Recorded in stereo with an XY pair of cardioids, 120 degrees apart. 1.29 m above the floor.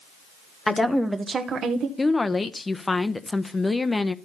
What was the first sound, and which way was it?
A woman speaking, 15° left.